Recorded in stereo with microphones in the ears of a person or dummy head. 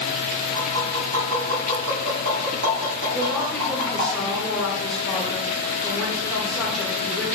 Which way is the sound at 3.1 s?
5° left (ahead or behind).